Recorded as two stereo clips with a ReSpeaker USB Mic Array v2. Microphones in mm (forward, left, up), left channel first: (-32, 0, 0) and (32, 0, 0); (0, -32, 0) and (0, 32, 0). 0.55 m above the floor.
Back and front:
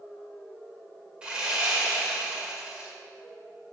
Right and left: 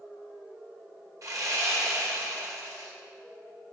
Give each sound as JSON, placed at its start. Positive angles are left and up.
{"t": 1.2, "sound": "sawing", "azimuth_deg": 75, "distance_m": 1.7}